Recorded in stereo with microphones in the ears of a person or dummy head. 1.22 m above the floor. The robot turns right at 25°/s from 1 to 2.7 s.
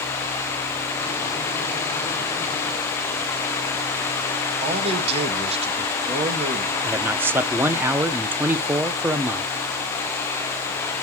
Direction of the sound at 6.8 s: 10° right (ahead or behind).